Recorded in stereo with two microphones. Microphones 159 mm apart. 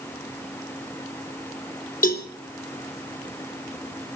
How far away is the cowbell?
About 3.5 m.